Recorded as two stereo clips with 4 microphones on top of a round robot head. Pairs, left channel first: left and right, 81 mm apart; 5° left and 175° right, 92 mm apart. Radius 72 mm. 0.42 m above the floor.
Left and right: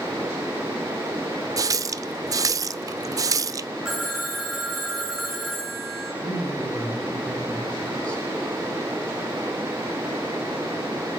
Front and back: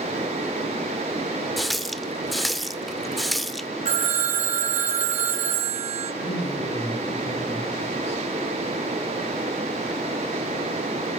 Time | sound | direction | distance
1.6 | a running tap | 85° right | 0.8 m
3.9 | a phone ringing | 175° right | 4.5 m
6.2 | a man speaking | 10° left | 7 m